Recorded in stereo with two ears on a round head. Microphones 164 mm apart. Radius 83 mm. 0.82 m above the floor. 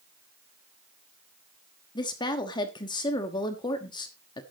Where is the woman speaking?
25° left (ahead or behind), 1.3 m.